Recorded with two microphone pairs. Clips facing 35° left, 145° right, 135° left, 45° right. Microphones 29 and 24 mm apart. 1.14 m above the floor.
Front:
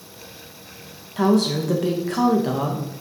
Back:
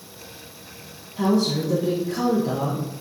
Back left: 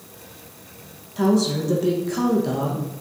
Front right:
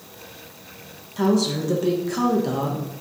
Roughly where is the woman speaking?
Ahead left.